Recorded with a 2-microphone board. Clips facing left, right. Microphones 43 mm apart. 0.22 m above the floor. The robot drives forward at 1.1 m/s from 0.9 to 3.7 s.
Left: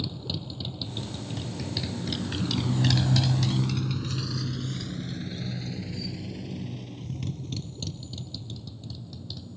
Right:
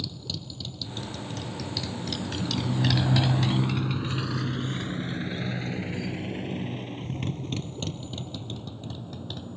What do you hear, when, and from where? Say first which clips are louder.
0.0 s a motorcycle: left 2 dB; 15° left (ahead or behind); by 9.6 s 45° right (ahead or behind)